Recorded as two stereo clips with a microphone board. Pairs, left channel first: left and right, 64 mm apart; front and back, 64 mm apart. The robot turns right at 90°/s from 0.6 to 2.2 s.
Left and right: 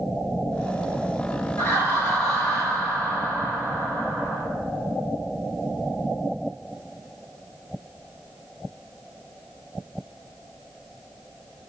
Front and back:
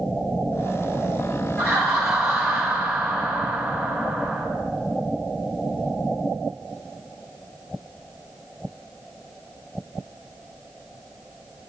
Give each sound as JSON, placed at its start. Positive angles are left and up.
{"t": 1.6, "sound": "laughter", "azimuth_deg": 105, "distance_m": 1.3}